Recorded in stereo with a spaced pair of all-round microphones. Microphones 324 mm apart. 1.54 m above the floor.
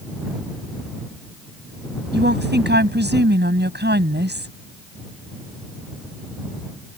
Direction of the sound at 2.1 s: 35° right (ahead or behind).